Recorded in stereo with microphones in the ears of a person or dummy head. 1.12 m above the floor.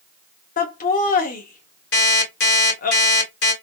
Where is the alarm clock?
65° left (ahead or behind), 2.0 m.